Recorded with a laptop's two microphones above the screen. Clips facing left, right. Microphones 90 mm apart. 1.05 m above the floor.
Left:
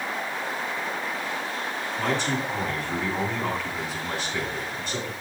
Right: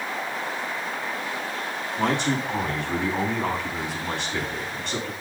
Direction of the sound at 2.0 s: 60° right (ahead or behind).